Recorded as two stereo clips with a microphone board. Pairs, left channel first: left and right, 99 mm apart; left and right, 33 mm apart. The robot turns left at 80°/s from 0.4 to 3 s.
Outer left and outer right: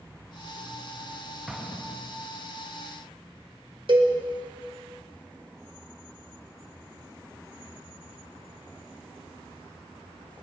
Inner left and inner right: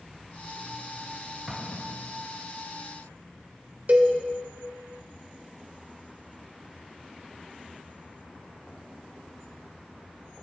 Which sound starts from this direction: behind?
An explosion, at 1.5 s.